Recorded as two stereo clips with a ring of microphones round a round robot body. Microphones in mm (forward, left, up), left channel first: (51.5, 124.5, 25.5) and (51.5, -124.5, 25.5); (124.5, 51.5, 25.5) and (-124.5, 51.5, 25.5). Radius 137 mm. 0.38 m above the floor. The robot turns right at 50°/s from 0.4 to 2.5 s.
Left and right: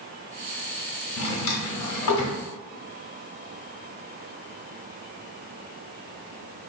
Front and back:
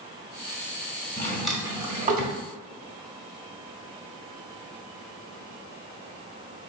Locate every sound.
1.2 s a drawer: 75° left, 1.0 m; by 2.4 s 135° left, 1.0 m